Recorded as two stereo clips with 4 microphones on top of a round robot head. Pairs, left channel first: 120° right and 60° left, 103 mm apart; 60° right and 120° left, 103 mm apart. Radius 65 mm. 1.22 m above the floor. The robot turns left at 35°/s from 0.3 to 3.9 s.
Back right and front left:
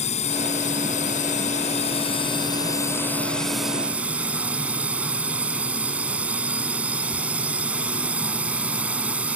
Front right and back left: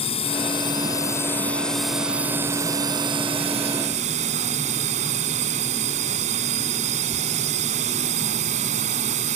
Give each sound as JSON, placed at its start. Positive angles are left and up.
{"t": 0.0, "sound": "a drone", "azimuth_deg": -95}